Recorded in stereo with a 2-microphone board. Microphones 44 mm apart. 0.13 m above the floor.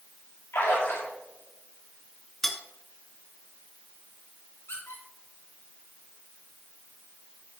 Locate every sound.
0.5 s a splash: 75° left (ahead or behind), 4 m
2.4 s cutlery clinking: 10° left (ahead or behind), 0.8 m
4.7 s a squeak: 80° left, 3.5 m